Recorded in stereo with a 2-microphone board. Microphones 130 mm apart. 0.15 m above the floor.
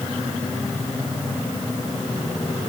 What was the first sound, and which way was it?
Only background noise.